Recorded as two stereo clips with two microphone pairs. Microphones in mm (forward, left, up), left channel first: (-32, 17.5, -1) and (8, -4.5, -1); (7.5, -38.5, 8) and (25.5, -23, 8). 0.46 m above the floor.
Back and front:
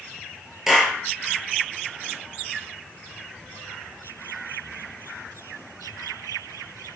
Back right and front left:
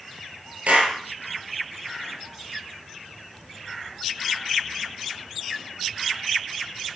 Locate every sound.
0.7 s a clap: 60° left, 6 m